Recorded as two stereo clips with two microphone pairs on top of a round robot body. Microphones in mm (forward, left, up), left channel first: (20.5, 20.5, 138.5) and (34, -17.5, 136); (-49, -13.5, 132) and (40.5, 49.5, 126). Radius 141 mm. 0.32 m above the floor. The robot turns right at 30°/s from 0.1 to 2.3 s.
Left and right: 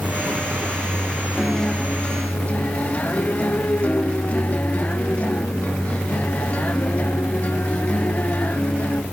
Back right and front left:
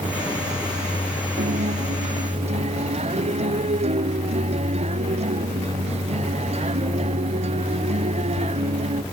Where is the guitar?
30° left; by 9.0 s 55° left.